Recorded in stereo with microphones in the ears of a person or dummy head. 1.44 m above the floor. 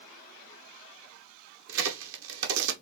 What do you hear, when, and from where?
1.7 s a crack: 70° right (ahead or behind), 0.8 m